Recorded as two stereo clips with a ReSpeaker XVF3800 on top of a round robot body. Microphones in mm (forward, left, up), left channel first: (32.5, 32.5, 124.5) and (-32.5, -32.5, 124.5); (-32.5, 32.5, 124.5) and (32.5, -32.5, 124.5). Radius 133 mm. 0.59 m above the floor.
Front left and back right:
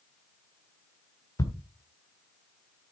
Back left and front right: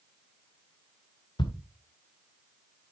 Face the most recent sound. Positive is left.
turn(degrees=100)